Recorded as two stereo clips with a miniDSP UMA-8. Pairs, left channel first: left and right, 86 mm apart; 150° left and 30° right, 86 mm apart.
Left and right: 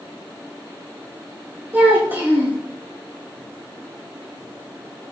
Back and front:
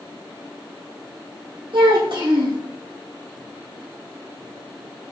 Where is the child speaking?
25° right, 4 m.